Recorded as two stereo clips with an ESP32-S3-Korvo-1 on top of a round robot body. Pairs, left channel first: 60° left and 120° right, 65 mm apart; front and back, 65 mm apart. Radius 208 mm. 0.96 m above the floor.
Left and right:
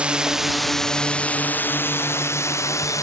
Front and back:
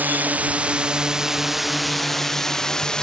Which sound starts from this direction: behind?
A drone, at 0.0 s.